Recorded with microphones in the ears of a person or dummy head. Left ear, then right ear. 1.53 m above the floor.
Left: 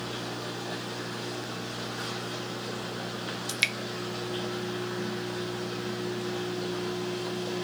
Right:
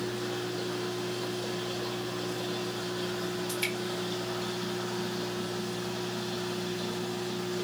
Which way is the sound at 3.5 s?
50° left (ahead or behind).